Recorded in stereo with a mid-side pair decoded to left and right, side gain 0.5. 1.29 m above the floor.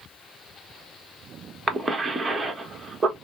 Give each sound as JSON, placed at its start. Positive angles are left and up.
{"t": 1.7, "sound": "a cough", "azimuth_deg": -30, "distance_m": 1.1}